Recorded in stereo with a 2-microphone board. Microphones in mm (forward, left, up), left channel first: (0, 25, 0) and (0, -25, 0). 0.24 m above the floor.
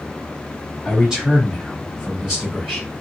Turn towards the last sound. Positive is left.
turn(degrees=-5)  # may be behind; listen again after turning